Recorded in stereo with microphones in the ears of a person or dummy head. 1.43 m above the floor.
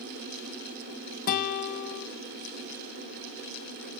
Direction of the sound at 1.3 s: 50° left (ahead or behind).